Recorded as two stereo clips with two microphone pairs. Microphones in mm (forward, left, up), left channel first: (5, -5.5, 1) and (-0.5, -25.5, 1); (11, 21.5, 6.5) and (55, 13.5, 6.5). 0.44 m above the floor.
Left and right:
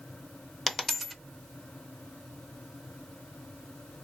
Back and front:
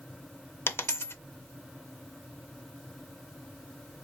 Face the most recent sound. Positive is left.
turn(degrees=165)